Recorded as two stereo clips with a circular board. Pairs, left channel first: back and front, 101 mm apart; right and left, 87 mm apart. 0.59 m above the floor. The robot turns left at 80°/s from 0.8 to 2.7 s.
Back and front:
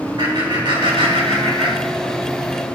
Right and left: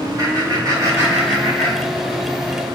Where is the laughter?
45° left, 4.5 m; by 2.2 s 70° right, 4.5 m.